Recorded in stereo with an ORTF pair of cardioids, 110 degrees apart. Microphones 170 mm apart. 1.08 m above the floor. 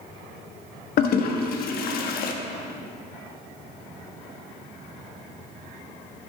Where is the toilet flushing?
60° left, 1.1 m.